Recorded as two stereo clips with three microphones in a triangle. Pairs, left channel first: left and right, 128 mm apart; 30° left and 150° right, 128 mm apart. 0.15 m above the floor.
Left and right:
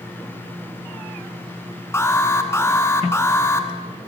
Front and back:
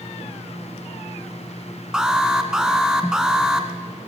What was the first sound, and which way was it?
An alarm, 130° left.